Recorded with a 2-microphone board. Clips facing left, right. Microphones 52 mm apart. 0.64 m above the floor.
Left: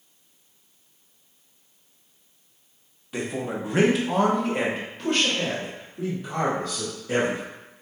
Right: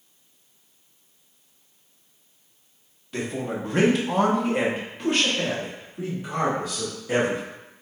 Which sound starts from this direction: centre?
A man speaking, at 3.1 s.